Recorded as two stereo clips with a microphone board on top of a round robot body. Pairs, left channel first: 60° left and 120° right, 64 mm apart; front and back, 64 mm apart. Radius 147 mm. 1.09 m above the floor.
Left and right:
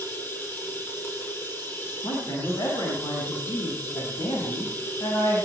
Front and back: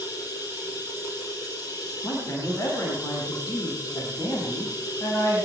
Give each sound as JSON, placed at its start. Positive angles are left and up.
{"t": 0.0, "sound": "running water", "azimuth_deg": 5, "distance_m": 6.5}
{"t": 2.0, "sound": "a man speaking", "azimuth_deg": 45, "distance_m": 7.5}